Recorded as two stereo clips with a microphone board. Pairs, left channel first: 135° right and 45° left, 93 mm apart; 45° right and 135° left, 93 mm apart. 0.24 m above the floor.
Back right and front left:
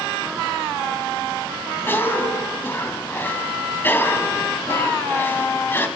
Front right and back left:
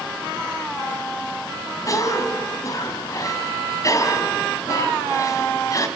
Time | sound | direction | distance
1.9 | a cough | 80° right | 2.5 m